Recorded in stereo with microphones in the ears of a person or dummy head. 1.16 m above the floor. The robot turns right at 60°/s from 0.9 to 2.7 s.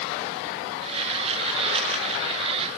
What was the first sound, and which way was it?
Only background noise.